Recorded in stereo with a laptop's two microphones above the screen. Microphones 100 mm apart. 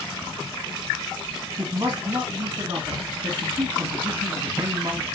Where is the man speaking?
40° right (ahead or behind), 1.1 m.